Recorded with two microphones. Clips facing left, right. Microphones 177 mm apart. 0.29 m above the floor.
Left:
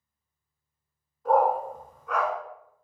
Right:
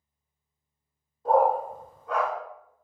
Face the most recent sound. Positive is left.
turn(degrees=-35)  # may be behind; listen again after turning